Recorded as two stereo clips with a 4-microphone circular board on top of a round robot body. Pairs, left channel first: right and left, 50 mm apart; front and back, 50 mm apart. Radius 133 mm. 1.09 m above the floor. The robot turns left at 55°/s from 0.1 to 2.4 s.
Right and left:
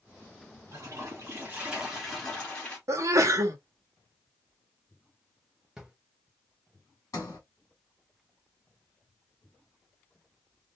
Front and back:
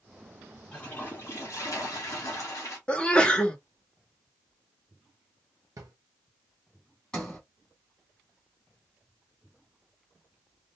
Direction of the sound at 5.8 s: 170° left.